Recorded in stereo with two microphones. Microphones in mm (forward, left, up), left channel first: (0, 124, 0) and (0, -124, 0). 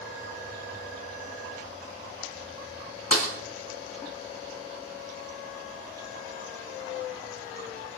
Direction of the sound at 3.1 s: 80° left.